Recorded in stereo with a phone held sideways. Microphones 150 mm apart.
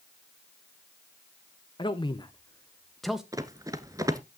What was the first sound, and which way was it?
A man speaking, 30° left (ahead or behind).